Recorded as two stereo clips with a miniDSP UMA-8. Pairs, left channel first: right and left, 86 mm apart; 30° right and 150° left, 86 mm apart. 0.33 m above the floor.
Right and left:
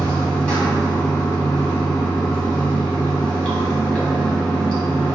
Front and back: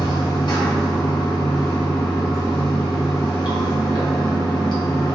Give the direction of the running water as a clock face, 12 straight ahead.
12 o'clock.